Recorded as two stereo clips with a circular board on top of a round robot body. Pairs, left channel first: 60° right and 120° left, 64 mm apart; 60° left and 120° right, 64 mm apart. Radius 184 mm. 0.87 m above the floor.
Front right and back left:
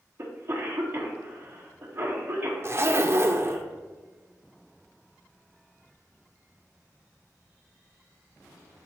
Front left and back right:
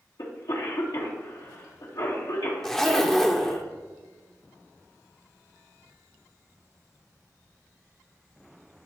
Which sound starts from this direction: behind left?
A zipper, at 2.6 s.